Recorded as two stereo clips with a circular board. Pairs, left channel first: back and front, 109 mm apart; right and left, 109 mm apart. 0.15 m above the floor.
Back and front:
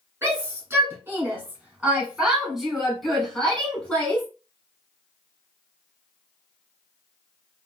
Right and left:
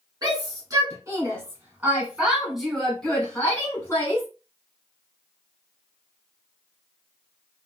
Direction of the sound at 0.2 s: 55° left.